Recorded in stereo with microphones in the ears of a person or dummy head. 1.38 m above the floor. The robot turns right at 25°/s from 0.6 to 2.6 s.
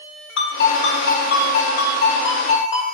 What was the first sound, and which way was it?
A ringtone, 90° left.